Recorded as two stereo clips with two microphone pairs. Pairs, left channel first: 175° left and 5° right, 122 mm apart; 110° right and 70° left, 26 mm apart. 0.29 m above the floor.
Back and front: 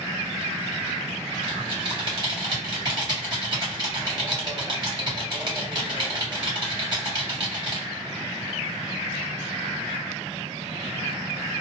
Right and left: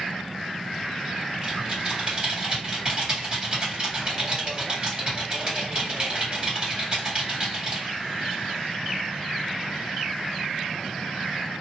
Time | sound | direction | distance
1.4 | typing on a keyboard | 20° left | 1.9 m